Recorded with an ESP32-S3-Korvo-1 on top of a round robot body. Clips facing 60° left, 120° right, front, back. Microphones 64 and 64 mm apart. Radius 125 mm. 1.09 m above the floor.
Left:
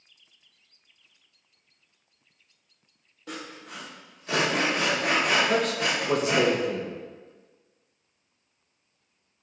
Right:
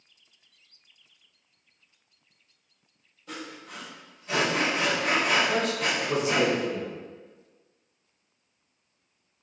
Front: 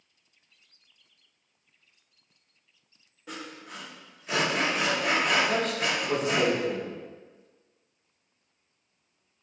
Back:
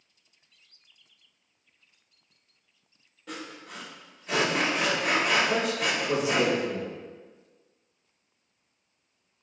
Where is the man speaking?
100° left, 0.9 m.